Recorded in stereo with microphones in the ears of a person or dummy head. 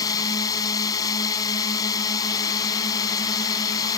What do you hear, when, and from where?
0.0 s a drone: 20° left (ahead or behind)